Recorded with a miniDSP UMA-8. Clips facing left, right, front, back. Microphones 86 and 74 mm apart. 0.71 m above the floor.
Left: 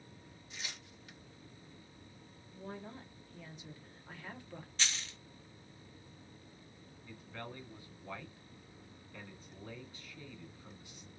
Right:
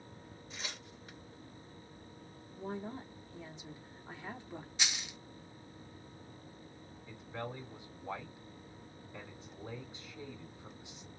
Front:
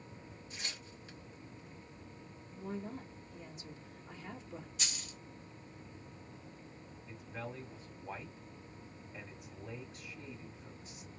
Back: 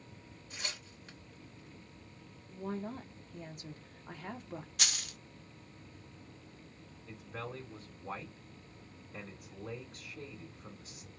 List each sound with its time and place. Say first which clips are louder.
0.5 s tearing paper: right 2 dB, back 3 dB; 145° right, 3 m
2.5 s a woman speaking: right 5 dB, back 3 dB; 155° right, 1.6 m
4.8 s a dropped coin: left 1 dB, back 5 dB; 165° right, 0.5 m
7.1 s a man speaking: right 5 dB, back 2 dB; 160° right, 3.5 m